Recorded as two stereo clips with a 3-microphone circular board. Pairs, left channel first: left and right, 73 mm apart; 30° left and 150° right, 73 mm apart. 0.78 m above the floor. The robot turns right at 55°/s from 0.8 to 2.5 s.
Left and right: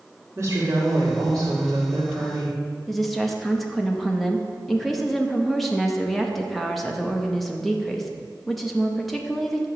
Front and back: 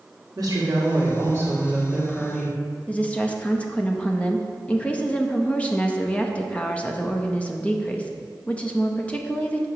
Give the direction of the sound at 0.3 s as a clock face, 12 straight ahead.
4 o'clock.